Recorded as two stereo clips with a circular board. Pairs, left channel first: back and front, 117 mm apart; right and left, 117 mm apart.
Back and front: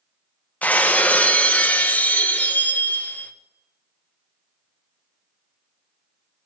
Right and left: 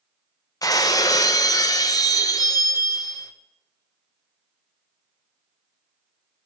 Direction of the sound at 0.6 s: 115° right.